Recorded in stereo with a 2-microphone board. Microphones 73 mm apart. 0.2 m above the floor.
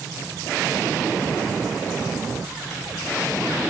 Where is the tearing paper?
No tearing paper in this recording.